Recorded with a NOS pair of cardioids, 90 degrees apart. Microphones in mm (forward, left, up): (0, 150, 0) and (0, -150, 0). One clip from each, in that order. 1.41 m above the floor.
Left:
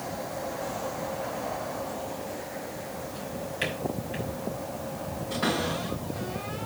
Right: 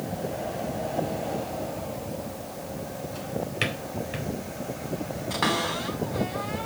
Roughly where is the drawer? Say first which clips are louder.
Right 4 dB; ahead right.